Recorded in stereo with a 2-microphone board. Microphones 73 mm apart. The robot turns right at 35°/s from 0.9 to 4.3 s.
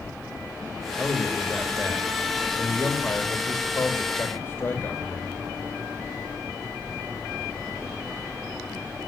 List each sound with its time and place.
1.0 s a man speaking: 10° right, 1.7 m; by 5.4 s 110° left, 1.7 m